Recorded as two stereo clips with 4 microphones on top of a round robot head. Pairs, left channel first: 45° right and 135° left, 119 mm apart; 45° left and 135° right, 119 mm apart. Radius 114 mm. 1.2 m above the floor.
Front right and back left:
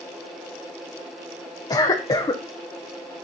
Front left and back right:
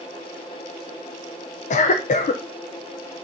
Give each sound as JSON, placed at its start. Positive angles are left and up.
{"t": 1.7, "sound": "a cough", "azimuth_deg": 15, "distance_m": 0.6}